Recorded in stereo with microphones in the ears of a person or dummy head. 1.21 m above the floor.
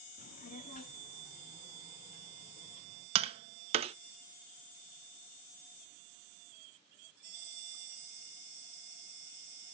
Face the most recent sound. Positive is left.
turn(degrees=-30)  # may be behind; listen again after turning